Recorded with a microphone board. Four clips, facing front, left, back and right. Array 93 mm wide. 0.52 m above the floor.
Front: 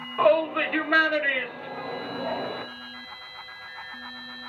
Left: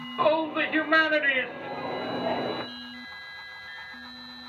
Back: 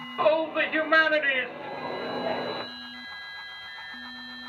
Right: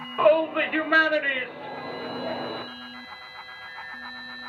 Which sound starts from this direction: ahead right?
A shout, at 0.2 s.